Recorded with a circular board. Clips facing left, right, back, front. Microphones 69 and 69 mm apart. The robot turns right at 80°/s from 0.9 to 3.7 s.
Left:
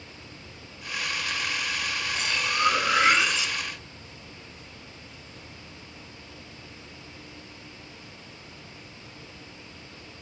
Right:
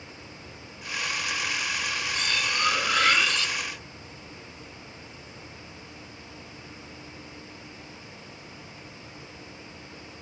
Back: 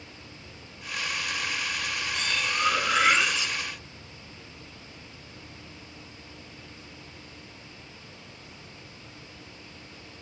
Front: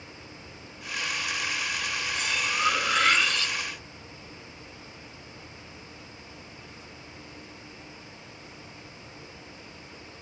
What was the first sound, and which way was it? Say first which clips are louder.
Cutlery clinking: left 2 dB, even; 45° left.